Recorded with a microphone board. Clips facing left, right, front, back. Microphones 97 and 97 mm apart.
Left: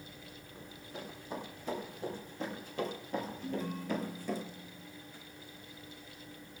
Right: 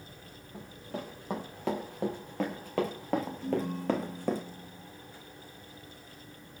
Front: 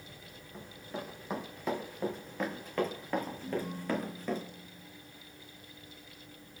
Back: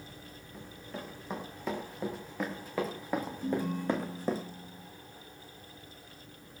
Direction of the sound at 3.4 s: 170° right.